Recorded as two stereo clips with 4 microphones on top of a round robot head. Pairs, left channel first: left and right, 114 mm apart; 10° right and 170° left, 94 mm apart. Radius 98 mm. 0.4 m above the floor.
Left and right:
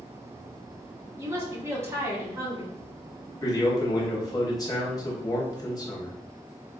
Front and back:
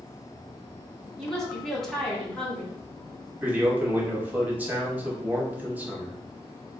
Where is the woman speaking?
90° right, 1.1 m.